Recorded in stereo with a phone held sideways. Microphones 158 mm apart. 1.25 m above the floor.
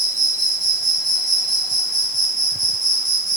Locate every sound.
0.0 s an insect: 20° right (ahead or behind), 1.9 m